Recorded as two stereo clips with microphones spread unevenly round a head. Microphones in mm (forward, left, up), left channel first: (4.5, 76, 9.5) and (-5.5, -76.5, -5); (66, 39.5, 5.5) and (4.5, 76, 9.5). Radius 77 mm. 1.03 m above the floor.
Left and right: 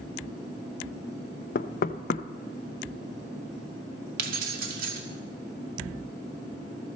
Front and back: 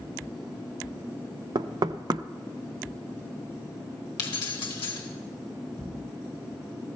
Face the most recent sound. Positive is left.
turn(degrees=-60)